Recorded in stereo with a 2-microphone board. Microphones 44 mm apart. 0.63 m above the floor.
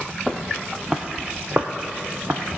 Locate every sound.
0.3 s footsteps: centre (ahead or behind), 0.9 m; by 2.4 s 55° right (ahead or behind), 1.0 m